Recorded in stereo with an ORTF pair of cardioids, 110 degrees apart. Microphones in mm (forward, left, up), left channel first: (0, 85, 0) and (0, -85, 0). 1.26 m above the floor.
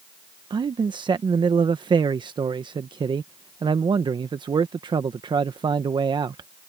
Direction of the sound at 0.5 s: 25° right.